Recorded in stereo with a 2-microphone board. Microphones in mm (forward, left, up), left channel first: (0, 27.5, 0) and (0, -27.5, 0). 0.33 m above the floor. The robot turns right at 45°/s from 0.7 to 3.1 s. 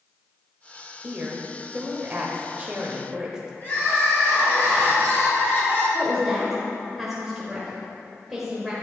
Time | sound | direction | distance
1.0 | a woman speaking | 120° right | 1.0 m
3.6 | crying | 45° left (ahead or behind) | 2.5 m
5.9 | a woman speaking | 5° right (ahead or behind) | 1.4 m